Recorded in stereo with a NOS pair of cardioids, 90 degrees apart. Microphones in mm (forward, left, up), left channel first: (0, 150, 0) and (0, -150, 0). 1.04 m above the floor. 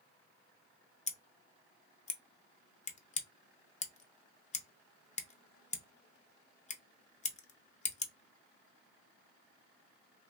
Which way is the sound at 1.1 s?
25° left.